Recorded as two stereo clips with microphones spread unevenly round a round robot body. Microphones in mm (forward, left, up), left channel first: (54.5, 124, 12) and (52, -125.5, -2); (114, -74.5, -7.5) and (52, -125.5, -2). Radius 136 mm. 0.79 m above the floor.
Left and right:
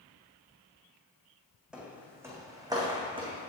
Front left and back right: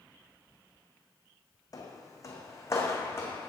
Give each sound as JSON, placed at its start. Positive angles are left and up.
{"t": 1.7, "sound": "footsteps", "azimuth_deg": -5, "distance_m": 2.5}